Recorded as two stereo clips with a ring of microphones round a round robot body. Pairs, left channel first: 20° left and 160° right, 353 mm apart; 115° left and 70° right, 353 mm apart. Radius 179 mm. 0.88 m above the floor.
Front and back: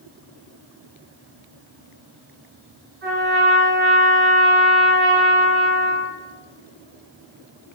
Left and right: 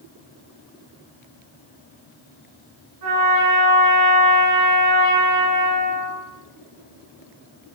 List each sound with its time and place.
3.0 s a trumpet: 95° right, 6 m